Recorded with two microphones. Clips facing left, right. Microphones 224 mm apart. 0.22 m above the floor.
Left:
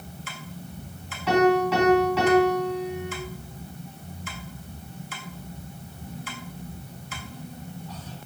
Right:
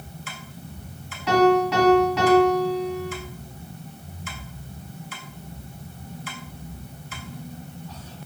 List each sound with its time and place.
1.3 s a piano: centre (ahead or behind), 2.5 m